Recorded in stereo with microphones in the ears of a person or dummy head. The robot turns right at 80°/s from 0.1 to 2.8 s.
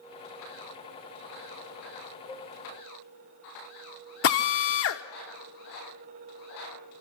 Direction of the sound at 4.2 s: 50° left (ahead or behind).